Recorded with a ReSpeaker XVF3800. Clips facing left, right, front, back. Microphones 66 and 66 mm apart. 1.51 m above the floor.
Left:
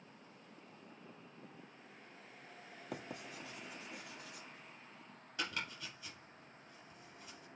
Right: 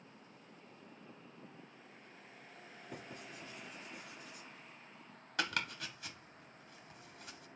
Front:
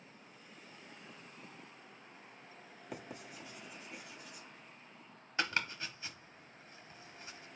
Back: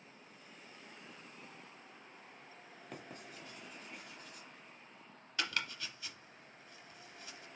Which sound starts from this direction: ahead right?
Chopping, at 5.4 s.